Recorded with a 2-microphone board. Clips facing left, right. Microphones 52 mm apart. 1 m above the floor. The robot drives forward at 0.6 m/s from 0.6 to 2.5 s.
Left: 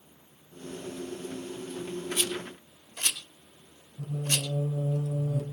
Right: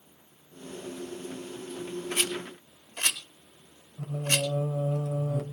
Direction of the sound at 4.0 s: 70° right (ahead or behind).